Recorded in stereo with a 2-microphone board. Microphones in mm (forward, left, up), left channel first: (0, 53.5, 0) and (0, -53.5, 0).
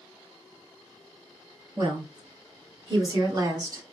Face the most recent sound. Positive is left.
turn(degrees=-30)  # may be behind; listen again after turning